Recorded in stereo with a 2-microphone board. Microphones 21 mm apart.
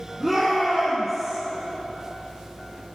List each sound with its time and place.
0.2 s a shout: 5° left (ahead or behind), 4.5 m; by 1.4 s 15° left (ahead or behind), 3.5 m